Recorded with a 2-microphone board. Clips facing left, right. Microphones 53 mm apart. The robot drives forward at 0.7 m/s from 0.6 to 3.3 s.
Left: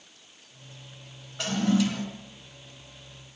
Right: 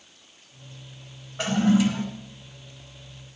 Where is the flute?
I don't hear a flute.